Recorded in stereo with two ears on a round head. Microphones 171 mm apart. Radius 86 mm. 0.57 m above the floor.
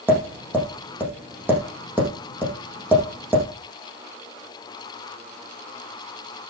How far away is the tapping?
About 6.5 m.